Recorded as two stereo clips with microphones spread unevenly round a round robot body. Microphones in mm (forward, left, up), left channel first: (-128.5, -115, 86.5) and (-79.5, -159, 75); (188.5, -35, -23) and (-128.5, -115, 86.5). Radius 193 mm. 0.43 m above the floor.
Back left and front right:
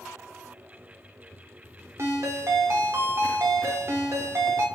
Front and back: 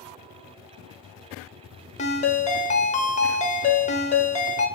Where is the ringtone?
30° right, 0.9 m.